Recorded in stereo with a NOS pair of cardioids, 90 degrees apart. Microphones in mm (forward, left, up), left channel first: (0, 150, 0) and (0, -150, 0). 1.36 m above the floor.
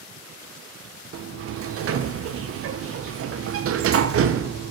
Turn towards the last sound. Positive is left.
turn(degrees=-50)